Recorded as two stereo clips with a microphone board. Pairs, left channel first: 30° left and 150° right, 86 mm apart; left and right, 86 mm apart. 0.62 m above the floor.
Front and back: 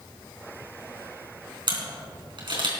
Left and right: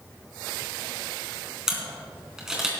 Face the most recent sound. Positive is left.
turn(degrees=-175)